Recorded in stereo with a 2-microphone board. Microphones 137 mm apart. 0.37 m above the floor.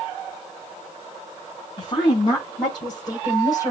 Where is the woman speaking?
40° left (ahead or behind), 3.5 m; by 3.7 s 25° left (ahead or behind), 4 m.